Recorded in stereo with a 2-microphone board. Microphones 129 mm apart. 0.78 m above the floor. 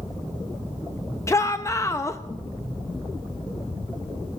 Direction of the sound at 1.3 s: 20° left (ahead or behind).